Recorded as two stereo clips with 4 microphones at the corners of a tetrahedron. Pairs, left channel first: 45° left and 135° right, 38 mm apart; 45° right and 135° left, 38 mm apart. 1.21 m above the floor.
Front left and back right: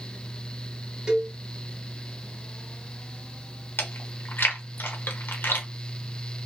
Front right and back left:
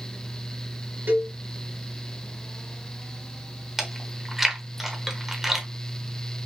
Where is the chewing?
55° left, 1.1 m.